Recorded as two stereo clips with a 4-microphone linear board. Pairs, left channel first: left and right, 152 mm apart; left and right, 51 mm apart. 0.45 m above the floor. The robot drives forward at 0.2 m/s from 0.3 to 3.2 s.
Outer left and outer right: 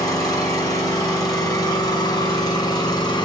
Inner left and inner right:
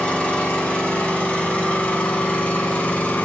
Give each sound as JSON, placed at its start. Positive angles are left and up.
{"t": 0.0, "sound": "an engine running", "side_deg": 25, "distance_m": 2.5}